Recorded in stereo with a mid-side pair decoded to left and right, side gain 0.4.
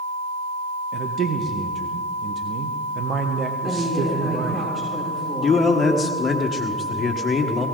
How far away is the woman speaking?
About 5.5 m.